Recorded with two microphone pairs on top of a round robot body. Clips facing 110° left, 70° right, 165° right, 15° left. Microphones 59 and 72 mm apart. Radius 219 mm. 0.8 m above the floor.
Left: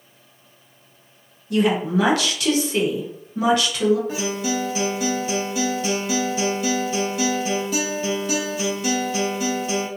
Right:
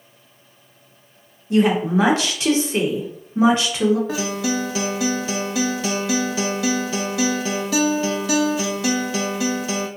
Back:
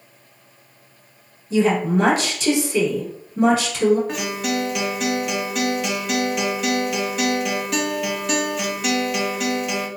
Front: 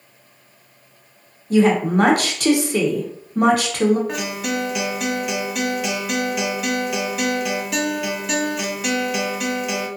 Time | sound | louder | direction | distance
1.5 | a woman speaking | right 2 dB, front 2 dB | 5° right | 1.0 m
4.1 | a guitar | right 1 dB, even | 75° right | 0.5 m